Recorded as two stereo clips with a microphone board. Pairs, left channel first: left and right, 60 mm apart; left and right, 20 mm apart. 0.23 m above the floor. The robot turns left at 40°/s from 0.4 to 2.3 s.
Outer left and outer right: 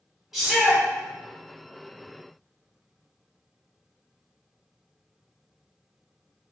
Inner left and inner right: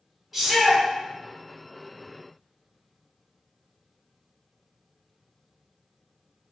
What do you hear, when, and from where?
0.3 s a shout: 10° right (ahead or behind), 1.0 m; by 0.8 s 5° right (ahead or behind), 1.0 m